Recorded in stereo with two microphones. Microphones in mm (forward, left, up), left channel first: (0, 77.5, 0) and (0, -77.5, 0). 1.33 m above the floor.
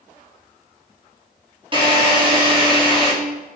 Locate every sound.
1.7 s a drill: 35° right (ahead or behind), 3 m